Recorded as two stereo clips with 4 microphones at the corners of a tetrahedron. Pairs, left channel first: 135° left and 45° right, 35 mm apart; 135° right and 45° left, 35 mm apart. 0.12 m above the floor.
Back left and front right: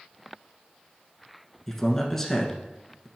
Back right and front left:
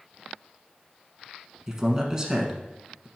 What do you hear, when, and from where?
1.7 s a man speaking: 80° left, 1.1 m